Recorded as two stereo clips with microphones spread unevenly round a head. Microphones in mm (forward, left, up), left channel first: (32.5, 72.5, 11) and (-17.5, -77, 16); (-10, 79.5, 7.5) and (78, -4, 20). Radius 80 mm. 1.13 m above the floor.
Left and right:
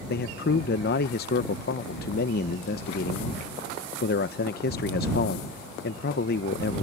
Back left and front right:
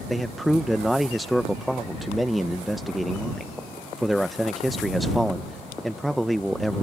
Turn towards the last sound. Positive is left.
turn(degrees=45)